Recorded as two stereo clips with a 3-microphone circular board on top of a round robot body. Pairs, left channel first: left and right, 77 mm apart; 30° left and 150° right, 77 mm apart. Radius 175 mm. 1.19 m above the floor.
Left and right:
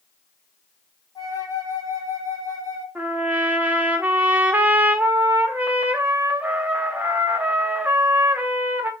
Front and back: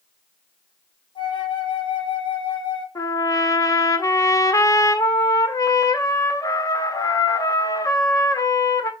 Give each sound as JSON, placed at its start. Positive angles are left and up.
{"t": 1.1, "sound": "a flute", "azimuth_deg": 45, "distance_m": 3.0}
{"t": 3.0, "sound": "a trumpet", "azimuth_deg": -20, "distance_m": 0.9}